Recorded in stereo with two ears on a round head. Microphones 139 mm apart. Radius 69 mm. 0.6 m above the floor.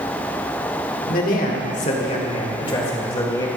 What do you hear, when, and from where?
1.1 s a man speaking: 60° left (ahead or behind), 1.7 m; by 3.5 s 25° left (ahead or behind), 2 m